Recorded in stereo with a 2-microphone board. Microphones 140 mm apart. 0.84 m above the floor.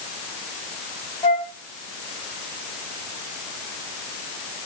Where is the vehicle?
I don't hear a vehicle.